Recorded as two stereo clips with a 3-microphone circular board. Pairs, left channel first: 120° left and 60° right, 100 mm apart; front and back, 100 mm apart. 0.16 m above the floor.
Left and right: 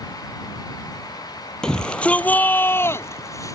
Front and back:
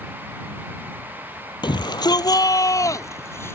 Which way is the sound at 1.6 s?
40° left.